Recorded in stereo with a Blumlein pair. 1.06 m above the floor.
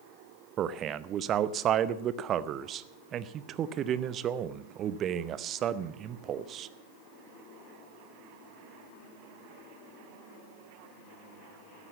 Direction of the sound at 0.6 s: 30° right.